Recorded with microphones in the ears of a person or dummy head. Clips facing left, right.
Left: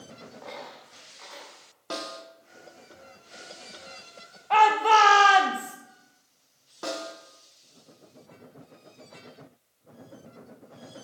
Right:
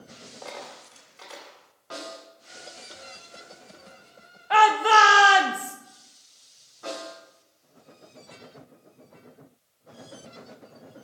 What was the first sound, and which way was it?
A dropped coin, 45° right (ahead or behind).